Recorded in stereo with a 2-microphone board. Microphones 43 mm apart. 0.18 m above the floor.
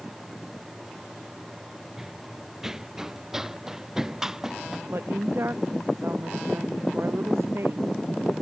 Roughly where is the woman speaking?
Right.